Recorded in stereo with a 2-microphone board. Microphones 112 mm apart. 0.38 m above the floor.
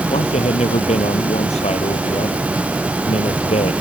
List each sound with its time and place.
0.1 s a man speaking: 70° left (ahead or behind)